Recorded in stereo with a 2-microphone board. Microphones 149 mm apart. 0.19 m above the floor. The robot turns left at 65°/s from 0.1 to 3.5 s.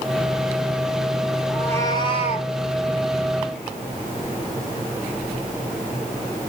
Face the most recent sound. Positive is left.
turn(degrees=50)